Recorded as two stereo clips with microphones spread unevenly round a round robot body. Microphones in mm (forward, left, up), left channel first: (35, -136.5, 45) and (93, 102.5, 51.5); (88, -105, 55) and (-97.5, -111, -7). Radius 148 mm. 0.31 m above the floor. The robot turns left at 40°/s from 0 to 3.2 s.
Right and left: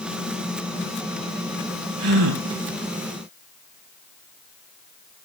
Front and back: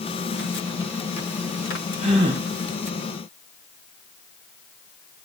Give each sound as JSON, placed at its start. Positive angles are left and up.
{"t": 2.0, "sound": "a gasp", "azimuth_deg": 120, "distance_m": 3.5}